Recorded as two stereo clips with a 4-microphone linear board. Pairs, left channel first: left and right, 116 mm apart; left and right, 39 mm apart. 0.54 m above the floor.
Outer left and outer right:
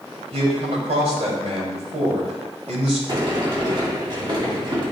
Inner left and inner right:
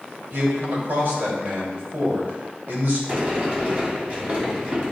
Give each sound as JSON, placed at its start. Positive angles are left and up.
{"t": 0.3, "sound": "a man speaking", "side_deg": -70, "distance_m": 3.0}
{"t": 3.1, "sound": "a sliding door", "side_deg": -40, "distance_m": 2.5}